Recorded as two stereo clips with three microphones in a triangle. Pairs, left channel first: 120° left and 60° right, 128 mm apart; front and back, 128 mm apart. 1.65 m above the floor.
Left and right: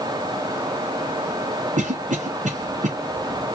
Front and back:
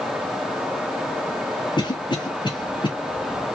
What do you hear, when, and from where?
1.8 s a cough: 50° right, 1.0 m